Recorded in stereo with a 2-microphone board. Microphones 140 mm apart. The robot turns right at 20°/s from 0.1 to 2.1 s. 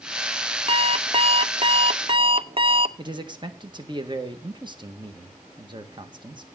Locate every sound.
0.7 s an alarm clock: 45° right (ahead or behind), 0.6 m; by 2.9 s 40° right (ahead or behind), 0.6 m
3.0 s a man speaking: 30° right (ahead or behind), 1.7 m